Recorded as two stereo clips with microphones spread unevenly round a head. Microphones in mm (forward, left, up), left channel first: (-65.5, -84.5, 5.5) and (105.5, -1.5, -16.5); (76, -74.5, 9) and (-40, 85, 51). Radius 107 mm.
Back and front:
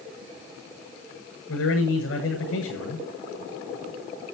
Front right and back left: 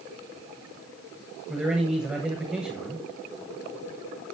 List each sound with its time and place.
1.5 s a man speaking: 150° right, 8.5 m